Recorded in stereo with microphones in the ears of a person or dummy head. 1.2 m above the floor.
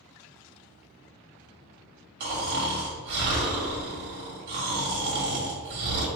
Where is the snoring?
55° right (ahead or behind), 1.2 m.